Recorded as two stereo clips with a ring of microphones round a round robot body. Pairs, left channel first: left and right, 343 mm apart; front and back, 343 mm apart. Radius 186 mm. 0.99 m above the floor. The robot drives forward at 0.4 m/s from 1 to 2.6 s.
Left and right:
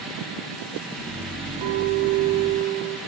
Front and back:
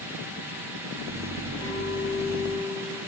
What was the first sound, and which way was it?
A clink, 80° right.